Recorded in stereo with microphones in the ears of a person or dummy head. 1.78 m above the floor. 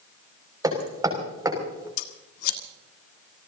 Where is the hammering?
25° right (ahead or behind), 5.5 m.